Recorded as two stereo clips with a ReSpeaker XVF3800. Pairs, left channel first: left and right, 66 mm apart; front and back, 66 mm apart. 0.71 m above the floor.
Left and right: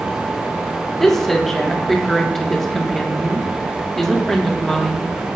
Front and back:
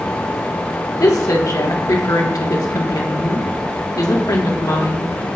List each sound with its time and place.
1.0 s a woman speaking: 5° left, 1.2 m